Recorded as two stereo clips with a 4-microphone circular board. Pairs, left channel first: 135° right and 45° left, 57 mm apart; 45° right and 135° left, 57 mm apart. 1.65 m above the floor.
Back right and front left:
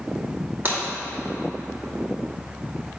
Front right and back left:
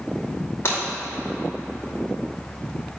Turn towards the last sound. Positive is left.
turn(degrees=-5)